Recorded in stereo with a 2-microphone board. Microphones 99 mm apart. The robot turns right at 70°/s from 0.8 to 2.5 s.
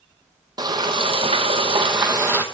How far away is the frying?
About 1.2 m.